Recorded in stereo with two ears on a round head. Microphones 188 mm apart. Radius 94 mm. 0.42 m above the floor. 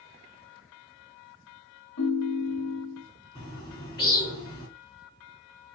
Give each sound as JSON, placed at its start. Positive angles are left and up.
{"t": 2.0, "sound": "a ringtone", "side_deg": 70, "distance_m": 1.5}
{"t": 3.4, "sound": "a bird", "side_deg": 20, "distance_m": 2.5}